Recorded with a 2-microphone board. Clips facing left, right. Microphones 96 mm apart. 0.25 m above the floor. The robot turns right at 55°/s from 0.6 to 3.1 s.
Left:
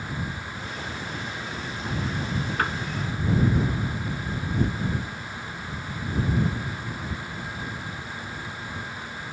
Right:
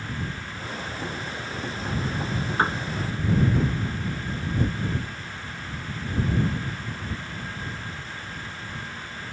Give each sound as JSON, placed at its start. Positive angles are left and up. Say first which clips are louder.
{"t": 2.6, "sound": "a piano", "louder": "right 4 dB", "side_deg": -25}